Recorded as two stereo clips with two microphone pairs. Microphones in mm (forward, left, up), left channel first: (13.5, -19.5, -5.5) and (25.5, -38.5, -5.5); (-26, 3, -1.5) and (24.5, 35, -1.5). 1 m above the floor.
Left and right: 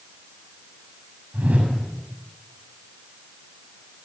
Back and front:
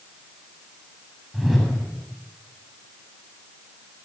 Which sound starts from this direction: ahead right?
A whoosh, at 1.3 s.